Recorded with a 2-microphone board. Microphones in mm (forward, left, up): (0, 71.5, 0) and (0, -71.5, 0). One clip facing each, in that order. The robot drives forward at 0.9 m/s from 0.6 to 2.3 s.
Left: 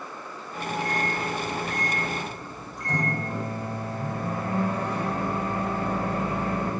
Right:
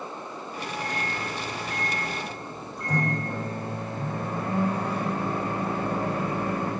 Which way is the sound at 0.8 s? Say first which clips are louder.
Left 5 dB; 45° right (ahead or behind).